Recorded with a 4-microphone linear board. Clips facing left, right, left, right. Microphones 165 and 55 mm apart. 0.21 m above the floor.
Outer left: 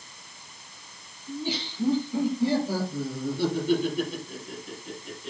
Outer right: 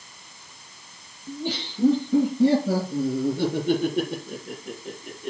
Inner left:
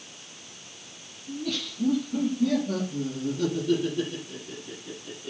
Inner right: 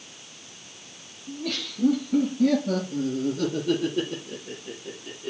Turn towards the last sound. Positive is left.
turn(degrees=-55)  # may be behind; listen again after turning